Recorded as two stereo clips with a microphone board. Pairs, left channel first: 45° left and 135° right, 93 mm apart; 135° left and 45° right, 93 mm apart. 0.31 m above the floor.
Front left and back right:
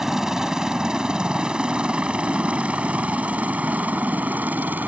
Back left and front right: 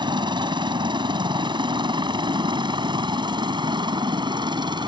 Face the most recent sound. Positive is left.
turn(degrees=-65)